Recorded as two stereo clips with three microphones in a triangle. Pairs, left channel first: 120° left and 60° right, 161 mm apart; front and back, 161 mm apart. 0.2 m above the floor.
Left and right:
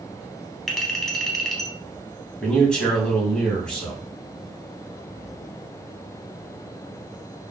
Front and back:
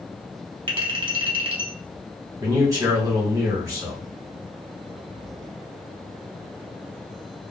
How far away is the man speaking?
About 1.2 m.